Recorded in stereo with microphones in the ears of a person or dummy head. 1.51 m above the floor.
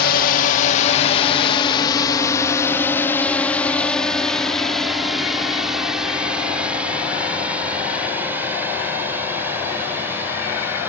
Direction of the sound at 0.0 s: 50° left (ahead or behind).